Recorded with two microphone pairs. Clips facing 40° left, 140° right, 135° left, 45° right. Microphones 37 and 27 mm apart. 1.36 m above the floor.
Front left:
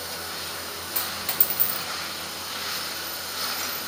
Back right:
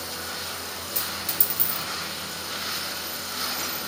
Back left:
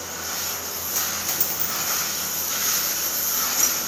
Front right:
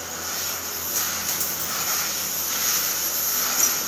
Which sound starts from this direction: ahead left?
A dropped coin, at 0.9 s.